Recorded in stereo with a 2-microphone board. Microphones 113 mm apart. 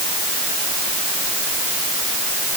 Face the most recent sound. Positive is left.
No sound to turn to.